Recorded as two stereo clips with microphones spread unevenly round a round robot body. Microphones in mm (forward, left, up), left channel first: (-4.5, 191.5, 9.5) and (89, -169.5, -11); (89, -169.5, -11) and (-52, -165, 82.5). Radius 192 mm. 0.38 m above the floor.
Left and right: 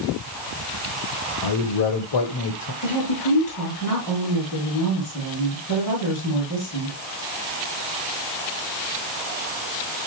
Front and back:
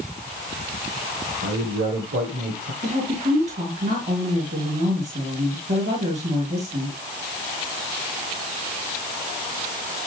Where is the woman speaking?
150° left, 6 m.